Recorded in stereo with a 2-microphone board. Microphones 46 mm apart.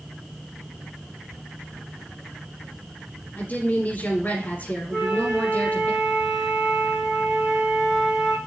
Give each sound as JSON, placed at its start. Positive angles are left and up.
{"t": 3.4, "sound": "a woman speaking", "side_deg": 40, "distance_m": 6.0}
{"t": 4.9, "sound": "a flute", "side_deg": -10, "distance_m": 5.0}